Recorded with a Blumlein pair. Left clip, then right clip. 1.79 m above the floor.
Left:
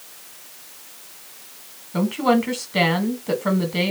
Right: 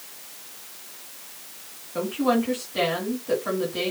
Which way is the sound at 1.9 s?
40° left.